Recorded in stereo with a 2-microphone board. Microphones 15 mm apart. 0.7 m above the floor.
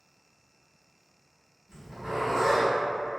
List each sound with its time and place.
1.7 s a zipper: 45° right (ahead or behind), 1.3 m